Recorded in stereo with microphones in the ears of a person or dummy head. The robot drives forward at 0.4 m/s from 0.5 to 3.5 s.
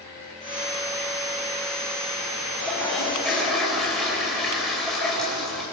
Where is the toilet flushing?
Centre (ahead or behind), 6 m.